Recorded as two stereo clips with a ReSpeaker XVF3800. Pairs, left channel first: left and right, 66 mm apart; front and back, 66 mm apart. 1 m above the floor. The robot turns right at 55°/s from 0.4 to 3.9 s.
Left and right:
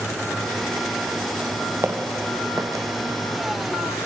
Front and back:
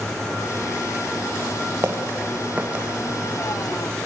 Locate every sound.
1.8 s footsteps: 140° right, 2.5 m; by 2.9 s 110° right, 3 m